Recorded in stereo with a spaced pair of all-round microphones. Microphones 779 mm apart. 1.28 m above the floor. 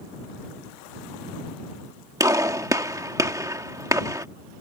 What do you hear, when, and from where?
2.2 s a gunshot: 5° right (ahead or behind)